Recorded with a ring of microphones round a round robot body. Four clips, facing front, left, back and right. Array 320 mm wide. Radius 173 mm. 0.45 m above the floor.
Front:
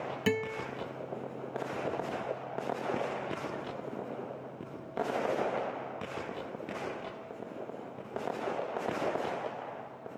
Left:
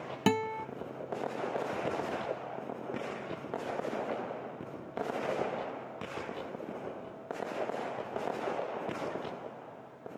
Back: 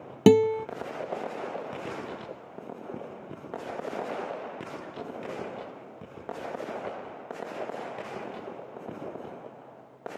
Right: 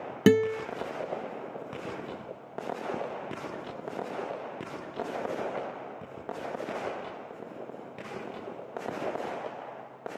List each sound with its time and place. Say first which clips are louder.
0.3 s a guitar: right 8 dB, back 14 dB; 155° right